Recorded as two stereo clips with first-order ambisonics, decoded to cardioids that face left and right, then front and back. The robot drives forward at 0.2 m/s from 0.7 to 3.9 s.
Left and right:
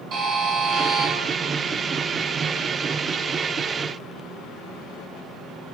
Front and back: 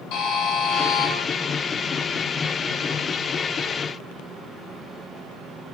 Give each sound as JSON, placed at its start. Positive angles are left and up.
{"t": 0.1, "sound": "a buzzer", "azimuth_deg": -35, "distance_m": 1.6}